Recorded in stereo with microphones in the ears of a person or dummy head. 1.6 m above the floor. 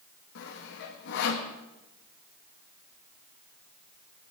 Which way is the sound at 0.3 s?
65° left (ahead or behind).